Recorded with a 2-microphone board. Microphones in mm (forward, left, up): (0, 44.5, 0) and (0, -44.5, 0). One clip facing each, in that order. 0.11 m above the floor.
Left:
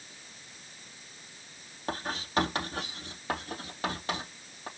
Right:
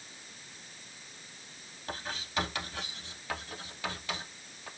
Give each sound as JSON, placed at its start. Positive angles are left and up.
{"t": 1.9, "sound": "writing", "side_deg": 40, "distance_m": 3.5}